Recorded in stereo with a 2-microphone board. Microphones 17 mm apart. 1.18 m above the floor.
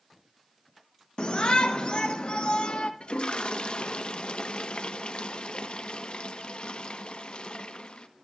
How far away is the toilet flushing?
About 1.4 m.